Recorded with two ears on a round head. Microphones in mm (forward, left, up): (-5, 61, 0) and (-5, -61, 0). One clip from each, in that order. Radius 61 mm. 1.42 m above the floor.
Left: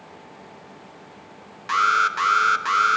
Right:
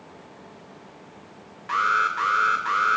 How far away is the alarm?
About 1.4 m.